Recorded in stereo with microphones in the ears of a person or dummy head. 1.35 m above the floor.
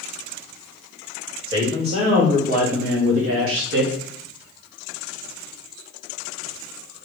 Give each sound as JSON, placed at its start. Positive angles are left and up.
{"t": 1.5, "sound": "a man speaking", "side_deg": -30, "distance_m": 1.6}